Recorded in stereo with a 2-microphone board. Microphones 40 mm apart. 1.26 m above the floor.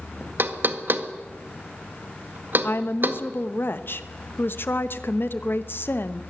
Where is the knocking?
60° right (ahead or behind), 1.4 m.